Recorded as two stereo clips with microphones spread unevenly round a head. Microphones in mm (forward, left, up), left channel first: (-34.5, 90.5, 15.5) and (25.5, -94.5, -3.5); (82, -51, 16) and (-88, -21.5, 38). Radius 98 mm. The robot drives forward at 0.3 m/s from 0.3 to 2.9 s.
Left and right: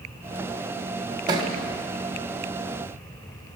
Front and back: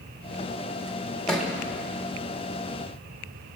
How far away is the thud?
About 1.0 m.